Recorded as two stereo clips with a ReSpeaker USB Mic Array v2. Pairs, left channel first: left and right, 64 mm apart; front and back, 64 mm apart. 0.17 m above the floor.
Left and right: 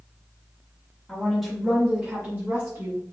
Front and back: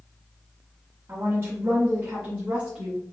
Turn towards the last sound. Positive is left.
turn(degrees=-110)